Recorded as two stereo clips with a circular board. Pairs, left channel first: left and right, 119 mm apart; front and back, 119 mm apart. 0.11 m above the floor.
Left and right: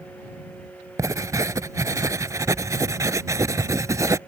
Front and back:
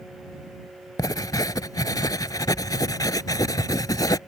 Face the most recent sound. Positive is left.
turn(degrees=-40)